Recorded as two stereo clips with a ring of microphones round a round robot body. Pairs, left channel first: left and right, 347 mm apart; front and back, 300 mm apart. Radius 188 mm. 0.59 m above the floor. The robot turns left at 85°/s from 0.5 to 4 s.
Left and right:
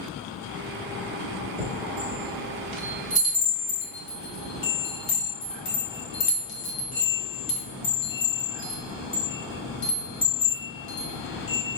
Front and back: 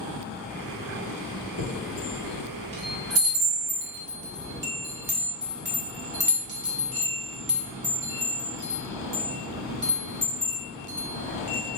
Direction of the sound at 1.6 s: 20° right.